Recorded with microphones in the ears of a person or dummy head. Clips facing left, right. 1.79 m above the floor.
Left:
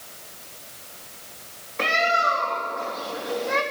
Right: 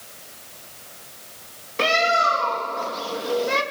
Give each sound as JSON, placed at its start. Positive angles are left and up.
{"t": 1.8, "sound": "a bird", "side_deg": -50, "distance_m": 2.5}